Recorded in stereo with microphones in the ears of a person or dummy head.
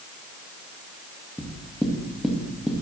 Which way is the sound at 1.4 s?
5° right (ahead or behind).